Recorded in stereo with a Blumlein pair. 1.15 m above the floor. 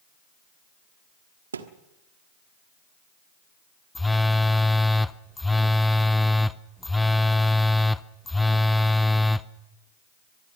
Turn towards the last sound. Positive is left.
turn(degrees=5)